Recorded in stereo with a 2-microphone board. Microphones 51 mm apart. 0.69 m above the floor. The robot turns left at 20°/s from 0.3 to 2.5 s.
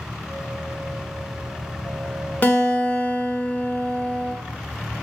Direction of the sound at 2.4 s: 35° left (ahead or behind).